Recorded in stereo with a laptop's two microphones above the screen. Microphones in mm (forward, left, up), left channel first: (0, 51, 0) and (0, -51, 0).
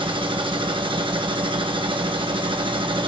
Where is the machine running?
55° right (ahead or behind), 0.9 m.